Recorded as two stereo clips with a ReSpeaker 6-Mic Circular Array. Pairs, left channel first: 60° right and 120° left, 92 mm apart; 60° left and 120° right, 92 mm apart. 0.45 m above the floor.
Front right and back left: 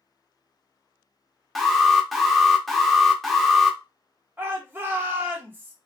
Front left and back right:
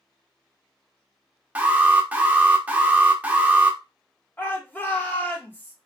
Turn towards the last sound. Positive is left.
turn(degrees=100)